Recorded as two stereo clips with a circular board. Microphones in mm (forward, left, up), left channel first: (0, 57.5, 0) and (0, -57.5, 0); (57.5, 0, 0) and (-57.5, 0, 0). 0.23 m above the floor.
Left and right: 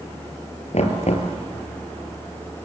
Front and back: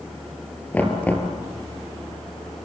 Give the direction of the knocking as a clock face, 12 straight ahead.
9 o'clock.